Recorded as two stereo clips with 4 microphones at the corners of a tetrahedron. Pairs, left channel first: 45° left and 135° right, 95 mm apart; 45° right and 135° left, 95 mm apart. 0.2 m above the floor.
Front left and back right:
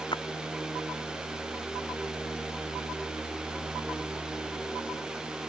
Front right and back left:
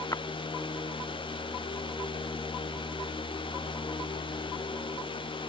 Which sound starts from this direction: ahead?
A splash, at 0.1 s.